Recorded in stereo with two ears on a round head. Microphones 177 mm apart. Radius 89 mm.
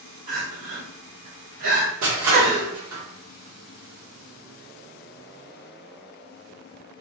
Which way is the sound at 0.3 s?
45° right (ahead or behind).